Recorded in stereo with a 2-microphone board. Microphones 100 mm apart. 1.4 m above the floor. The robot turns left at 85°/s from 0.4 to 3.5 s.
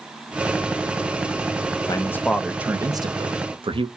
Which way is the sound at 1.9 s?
45° left.